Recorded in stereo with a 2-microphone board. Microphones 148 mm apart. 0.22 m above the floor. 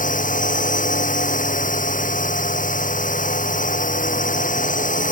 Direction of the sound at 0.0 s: 60° left (ahead or behind).